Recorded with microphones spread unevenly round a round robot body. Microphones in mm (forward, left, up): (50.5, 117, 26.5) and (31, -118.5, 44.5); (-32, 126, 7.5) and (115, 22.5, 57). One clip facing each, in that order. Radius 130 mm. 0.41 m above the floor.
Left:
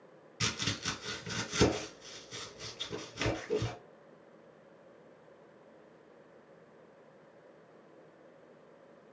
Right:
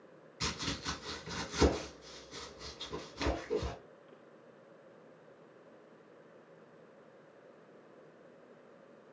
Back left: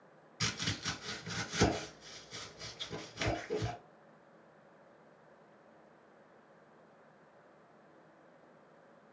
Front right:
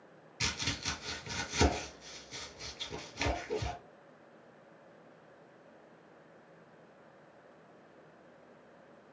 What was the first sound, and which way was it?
Chopping, 75° left.